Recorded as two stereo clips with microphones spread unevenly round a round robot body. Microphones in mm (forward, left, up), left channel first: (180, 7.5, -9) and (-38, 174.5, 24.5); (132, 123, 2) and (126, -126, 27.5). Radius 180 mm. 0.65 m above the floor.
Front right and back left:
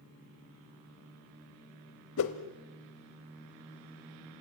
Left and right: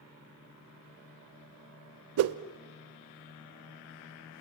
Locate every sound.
2.2 s a whoosh: 90° right, 0.6 m